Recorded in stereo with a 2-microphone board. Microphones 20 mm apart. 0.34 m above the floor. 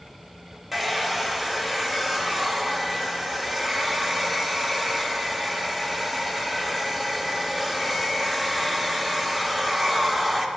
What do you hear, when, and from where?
0.7 s a hair dryer: 5° right (ahead or behind), 0.6 m